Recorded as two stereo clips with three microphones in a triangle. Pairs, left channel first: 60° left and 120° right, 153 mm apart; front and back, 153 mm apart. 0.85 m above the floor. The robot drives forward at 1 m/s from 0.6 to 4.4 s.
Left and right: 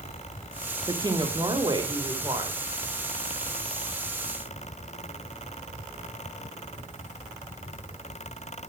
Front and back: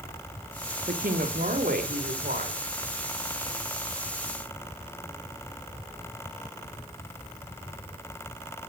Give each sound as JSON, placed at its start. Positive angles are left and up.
{"t": 0.9, "sound": "a woman speaking", "azimuth_deg": 180, "distance_m": 1.6}